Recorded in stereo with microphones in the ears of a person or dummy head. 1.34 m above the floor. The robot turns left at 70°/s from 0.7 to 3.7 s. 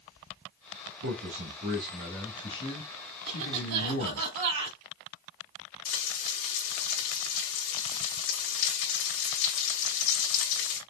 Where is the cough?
45° right, 3 m; by 4.8 s 80° right, 3 m.